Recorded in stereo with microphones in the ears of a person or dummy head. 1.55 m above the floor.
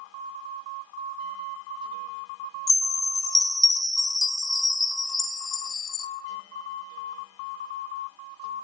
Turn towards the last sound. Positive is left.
turn(degrees=5)  # may be behind; listen again after turning